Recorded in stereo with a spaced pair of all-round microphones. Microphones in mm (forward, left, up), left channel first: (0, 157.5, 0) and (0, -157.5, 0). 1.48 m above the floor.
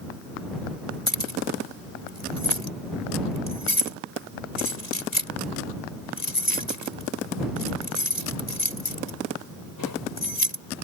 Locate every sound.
1.1 s keys jangling: 80° left